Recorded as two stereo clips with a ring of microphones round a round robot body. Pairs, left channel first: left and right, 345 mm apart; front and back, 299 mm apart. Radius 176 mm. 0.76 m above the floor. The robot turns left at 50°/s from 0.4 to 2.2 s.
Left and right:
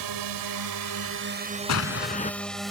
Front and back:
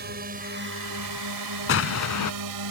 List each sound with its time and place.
0.0 s a drone: 115° right; by 2.7 s straight behind
1.7 s an explosion: 45° left; by 2.3 s 20° left